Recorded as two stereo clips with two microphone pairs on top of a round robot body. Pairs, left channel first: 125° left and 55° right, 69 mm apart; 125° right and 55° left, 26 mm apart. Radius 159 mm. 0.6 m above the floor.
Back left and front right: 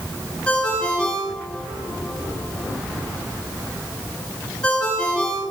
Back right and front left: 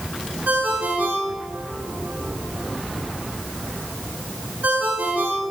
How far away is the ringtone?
About 6.5 m.